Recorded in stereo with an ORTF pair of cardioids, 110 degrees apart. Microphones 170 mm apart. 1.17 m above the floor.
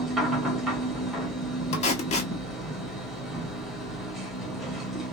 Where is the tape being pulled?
45° left, 1.1 m.